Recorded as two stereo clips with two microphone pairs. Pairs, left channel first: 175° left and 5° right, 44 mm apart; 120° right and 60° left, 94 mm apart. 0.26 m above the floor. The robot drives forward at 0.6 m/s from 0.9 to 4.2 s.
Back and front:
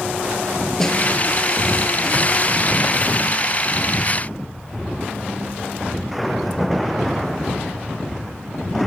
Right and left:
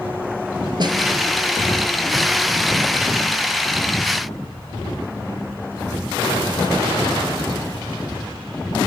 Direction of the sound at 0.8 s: 95° left.